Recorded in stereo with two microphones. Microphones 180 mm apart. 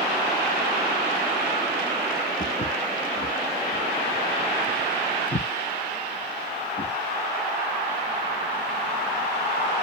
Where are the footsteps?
40° left (ahead or behind), 1.0 m; by 6.9 s 70° left (ahead or behind), 3 m.